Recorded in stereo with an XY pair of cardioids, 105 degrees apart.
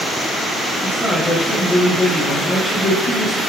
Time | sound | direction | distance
0.8 | a man speaking | 35° left | 8 m